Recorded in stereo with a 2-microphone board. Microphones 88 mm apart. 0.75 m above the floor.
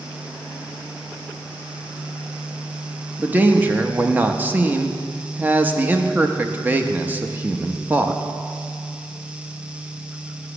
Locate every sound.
3.2 s a man speaking: 20° right (ahead or behind), 0.6 m